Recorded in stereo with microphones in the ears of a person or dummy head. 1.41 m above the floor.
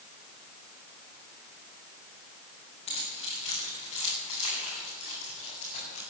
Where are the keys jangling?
35° left (ahead or behind), 7.5 m; by 6.0 s 40° left (ahead or behind), 9 m.